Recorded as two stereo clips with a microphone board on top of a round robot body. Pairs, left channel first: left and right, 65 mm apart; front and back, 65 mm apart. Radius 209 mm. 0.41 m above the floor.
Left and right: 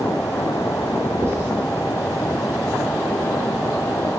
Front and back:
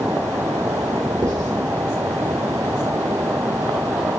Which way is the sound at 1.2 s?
145° right.